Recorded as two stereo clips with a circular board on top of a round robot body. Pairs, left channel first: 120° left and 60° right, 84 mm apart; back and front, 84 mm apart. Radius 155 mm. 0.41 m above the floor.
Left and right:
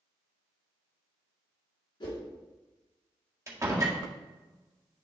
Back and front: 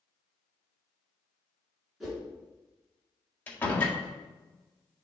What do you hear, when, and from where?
2.0 s a whoosh: 85° left, 2.5 m
3.5 s a door slam: 115° right, 1.8 m